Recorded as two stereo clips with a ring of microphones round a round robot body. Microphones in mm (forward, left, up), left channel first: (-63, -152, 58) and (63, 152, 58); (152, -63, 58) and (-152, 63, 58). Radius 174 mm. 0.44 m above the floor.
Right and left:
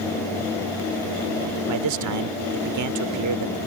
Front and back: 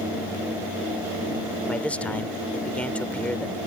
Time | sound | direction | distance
1.7 | a man speaking | 65° left | ?